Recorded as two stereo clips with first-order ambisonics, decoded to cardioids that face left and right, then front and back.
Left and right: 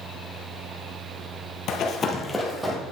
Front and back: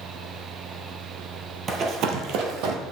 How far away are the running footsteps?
About 1.0 m.